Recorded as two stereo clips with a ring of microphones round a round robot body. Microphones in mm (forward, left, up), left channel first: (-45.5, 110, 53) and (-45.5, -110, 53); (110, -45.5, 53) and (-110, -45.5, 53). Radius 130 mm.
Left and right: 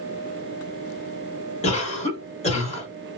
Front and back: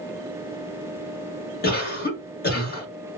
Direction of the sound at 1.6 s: 35° left.